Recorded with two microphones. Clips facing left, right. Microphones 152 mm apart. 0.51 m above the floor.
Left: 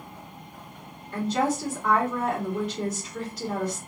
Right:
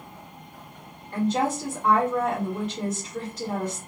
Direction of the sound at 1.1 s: 50° right (ahead or behind).